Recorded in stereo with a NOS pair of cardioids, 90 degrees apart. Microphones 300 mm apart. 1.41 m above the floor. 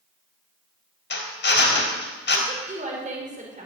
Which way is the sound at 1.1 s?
35° left.